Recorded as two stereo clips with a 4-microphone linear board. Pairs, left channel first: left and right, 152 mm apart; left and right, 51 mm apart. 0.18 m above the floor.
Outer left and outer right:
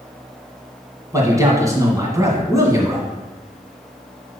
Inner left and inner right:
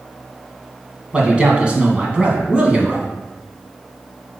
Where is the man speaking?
20° right (ahead or behind), 1.7 m.